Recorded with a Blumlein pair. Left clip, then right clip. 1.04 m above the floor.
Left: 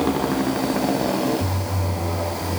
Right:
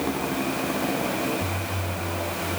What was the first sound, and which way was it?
A motorcycle, 70° left.